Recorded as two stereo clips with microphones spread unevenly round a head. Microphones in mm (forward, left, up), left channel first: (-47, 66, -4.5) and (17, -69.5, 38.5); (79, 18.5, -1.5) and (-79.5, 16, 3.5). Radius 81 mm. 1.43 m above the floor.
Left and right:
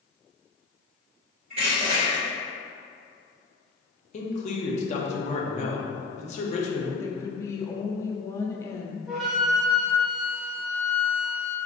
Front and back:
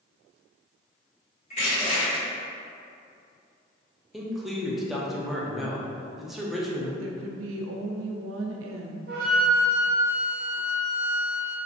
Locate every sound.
1.5 s crushing: 40° right, 1.5 m
4.1 s a man speaking: 90° left, 0.7 m
7.0 s a woman speaking: 175° right, 0.5 m
9.1 s a flute: 150° right, 0.7 m